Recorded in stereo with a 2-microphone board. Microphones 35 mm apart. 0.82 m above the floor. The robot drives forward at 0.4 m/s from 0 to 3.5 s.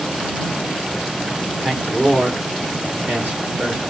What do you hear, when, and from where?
1.6 s a man speaking: 35° right (ahead or behind), 2.5 m; by 3.8 s 45° right (ahead or behind), 2 m